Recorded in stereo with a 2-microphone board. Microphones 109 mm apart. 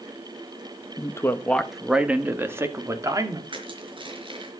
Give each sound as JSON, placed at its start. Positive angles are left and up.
{"t": 1.0, "sound": "a man speaking", "side_deg": 35, "distance_m": 1.3}
{"t": 3.5, "sound": "crushing", "side_deg": -50, "distance_m": 4.5}